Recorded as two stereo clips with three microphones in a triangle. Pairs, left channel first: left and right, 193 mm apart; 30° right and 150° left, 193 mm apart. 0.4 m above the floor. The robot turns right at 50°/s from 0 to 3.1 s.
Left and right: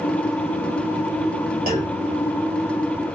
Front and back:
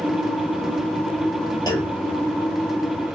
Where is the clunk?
95° right, 1.5 m; by 2.0 s 80° right, 1.5 m.